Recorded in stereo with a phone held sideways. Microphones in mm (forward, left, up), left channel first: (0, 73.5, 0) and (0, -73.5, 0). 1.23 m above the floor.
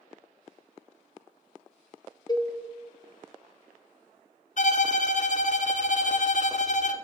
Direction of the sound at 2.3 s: 25° left (ahead or behind).